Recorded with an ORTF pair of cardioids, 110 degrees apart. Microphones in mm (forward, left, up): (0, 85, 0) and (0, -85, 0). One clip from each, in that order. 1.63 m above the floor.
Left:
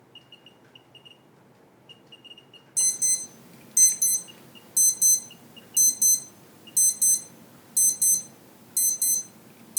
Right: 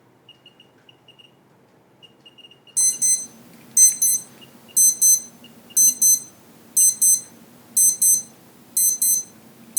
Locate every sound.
2.8 s an alarm: 10° right, 0.6 m